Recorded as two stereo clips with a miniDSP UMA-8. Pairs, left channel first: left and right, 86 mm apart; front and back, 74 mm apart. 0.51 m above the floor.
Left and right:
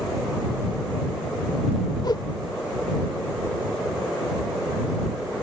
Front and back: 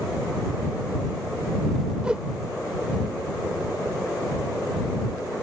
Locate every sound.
2.0 s a whoosh: 105° left